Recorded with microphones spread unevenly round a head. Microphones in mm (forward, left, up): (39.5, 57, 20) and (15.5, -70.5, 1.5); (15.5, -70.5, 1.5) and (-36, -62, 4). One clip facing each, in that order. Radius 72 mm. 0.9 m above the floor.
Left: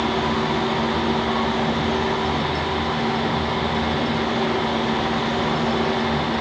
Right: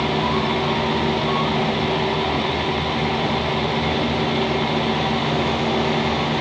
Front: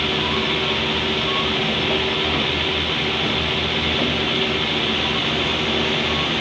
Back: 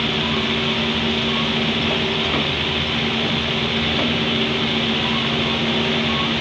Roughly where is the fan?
Right.